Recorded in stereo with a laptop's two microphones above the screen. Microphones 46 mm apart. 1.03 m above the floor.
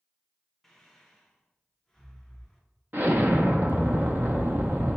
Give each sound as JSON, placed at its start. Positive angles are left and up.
{"t": 0.6, "sound": "breathing", "side_deg": 5, "distance_m": 0.6}
{"t": 2.9, "sound": "an explosion", "side_deg": -45, "distance_m": 0.6}